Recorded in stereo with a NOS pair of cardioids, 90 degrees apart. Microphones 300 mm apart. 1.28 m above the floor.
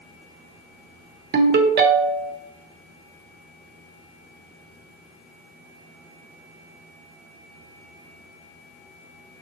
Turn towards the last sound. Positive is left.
turn(degrees=-35)